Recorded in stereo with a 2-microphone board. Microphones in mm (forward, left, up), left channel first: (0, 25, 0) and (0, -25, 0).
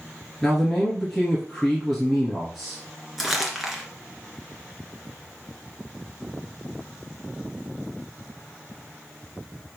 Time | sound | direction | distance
0.4 | a man speaking | 5° left (ahead or behind) | 2.5 m
3.2 | crumpling | 5° right (ahead or behind) | 2.0 m